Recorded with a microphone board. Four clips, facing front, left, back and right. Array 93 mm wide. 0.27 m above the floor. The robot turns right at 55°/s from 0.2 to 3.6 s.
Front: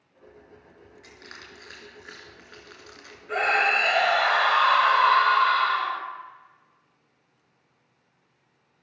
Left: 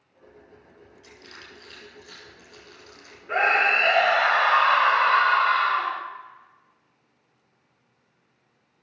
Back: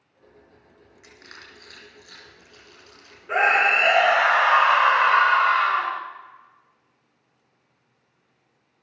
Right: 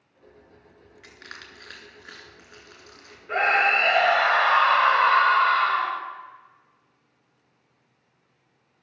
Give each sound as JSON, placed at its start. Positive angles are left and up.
{"t": 1.0, "sound": "crushing", "azimuth_deg": -110, "distance_m": 3.0}
{"t": 3.3, "sound": "a scream", "azimuth_deg": 165, "distance_m": 1.5}